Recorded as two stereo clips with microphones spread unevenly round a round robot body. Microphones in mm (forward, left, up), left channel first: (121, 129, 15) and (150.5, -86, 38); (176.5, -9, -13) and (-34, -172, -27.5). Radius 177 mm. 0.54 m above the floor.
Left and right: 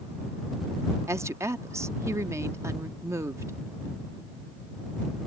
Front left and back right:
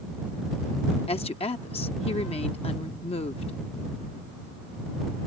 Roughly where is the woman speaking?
Ahead.